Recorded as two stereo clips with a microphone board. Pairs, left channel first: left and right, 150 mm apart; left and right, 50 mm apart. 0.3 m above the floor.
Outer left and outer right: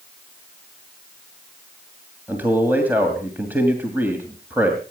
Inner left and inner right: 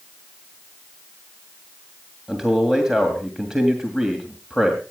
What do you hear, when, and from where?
2.3 s a man speaking: 10° right (ahead or behind), 2 m